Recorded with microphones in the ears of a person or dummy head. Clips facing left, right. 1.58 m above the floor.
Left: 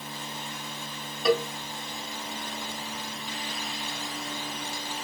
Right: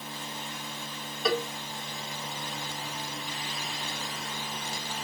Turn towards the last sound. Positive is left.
turn(degrees=5)  # may be behind; listen again after turning